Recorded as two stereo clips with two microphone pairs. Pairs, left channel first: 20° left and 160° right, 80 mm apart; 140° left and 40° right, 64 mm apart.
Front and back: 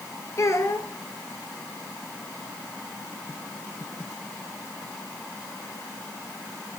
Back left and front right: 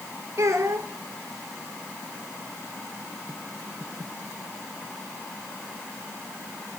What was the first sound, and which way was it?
A child speaking, 20° right.